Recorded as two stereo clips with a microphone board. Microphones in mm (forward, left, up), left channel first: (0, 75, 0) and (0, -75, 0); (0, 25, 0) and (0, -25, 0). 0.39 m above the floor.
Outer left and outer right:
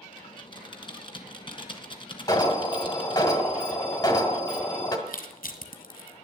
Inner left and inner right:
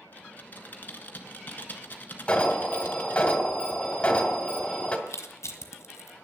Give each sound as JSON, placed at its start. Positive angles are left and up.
{"t": 0.1, "sound": "typing on a keyboard", "side_deg": 35, "distance_m": 1.4}
{"t": 2.3, "sound": "an alarm", "side_deg": 30, "distance_m": 1.6}
{"t": 5.1, "sound": "crushing", "side_deg": 80, "distance_m": 1.5}